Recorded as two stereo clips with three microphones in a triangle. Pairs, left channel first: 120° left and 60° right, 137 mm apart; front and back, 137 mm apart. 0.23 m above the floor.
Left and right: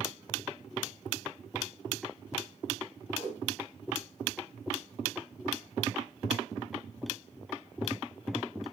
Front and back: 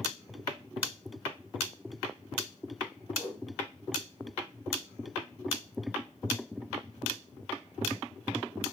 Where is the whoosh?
105° left, 5 m.